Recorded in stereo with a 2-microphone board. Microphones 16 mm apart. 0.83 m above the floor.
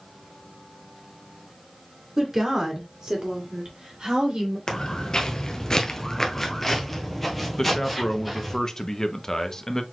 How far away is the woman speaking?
About 1.8 m.